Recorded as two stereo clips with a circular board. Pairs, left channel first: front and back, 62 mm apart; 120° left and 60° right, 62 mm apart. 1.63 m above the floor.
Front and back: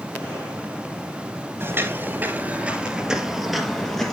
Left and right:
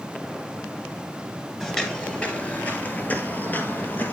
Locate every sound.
1.6 s footsteps: 170° right, 2 m; by 4.1 s 75° left, 2.5 m